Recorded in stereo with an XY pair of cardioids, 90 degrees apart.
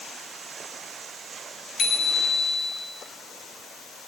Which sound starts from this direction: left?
A bicycle bell, at 1.8 s.